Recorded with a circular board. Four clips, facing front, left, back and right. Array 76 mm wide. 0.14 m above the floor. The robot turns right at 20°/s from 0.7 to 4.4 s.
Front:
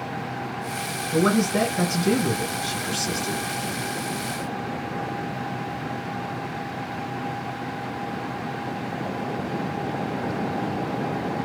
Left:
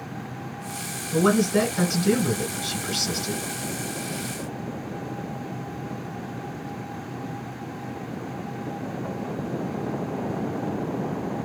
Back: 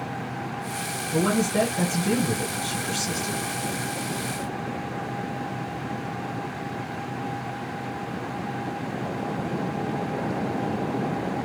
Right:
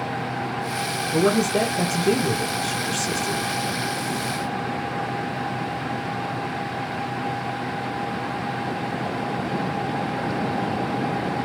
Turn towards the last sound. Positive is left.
turn(degrees=110)